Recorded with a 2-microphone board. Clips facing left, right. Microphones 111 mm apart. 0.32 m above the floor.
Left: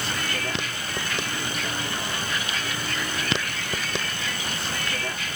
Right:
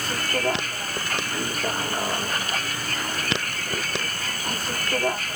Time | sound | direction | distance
0.0 | a vehicle | 50° right (ahead or behind) | ?